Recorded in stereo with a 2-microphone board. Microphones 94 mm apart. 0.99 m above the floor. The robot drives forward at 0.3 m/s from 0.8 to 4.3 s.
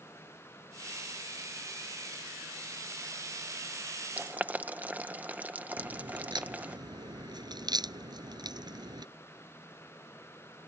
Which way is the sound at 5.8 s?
50° right (ahead or behind).